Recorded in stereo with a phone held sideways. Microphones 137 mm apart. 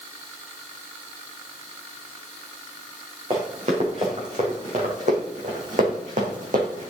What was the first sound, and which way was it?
Running footsteps, 50° right (ahead or behind).